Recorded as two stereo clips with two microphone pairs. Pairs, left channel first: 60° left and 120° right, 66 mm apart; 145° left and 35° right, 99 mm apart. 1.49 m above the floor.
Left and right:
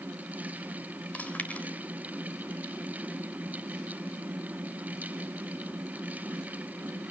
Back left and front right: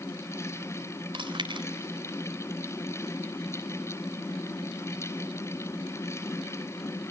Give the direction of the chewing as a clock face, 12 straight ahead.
12 o'clock.